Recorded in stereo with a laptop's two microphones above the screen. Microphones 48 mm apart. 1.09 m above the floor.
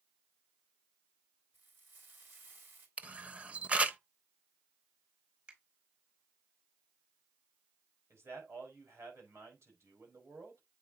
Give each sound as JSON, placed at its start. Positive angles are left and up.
{"t": 1.5, "sound": "frying", "side_deg": -45, "distance_m": 4.0}
{"t": 3.0, "sound": "a camera shutter", "side_deg": -25, "distance_m": 0.9}
{"t": 5.5, "sound": "a finger snap", "side_deg": -30, "distance_m": 3.5}
{"t": 8.1, "sound": "a man speaking", "side_deg": -75, "distance_m": 5.0}